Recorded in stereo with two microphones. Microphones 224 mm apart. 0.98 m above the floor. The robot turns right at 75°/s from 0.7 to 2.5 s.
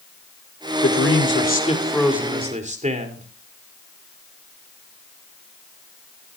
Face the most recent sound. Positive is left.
turn(degrees=-145)